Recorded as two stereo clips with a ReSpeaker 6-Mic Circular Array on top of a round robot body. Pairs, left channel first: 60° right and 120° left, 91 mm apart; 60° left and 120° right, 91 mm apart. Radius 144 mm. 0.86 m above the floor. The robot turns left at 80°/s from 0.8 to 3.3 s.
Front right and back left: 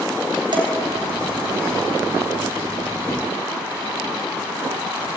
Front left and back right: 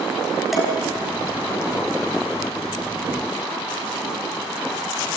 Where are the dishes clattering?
155° left, 5 m.